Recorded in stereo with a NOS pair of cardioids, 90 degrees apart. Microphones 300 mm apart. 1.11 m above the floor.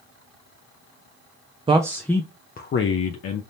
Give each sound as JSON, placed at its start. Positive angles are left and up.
{"t": 1.7, "sound": "a man speaking", "azimuth_deg": -15, "distance_m": 0.6}